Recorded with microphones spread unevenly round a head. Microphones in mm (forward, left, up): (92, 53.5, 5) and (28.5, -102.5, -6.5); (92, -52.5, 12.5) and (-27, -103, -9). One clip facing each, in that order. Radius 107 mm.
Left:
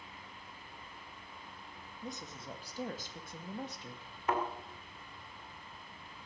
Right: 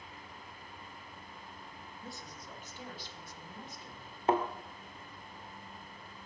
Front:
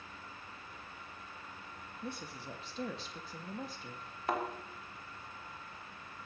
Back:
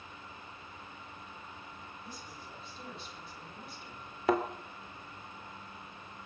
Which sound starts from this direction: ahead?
A woman speaking, at 2.0 s.